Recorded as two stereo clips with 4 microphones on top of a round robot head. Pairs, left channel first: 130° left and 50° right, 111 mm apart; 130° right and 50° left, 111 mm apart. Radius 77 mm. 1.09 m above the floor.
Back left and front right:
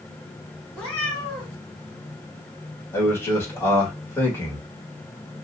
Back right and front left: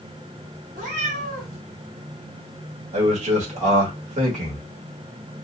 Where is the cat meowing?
50° left, 2 m.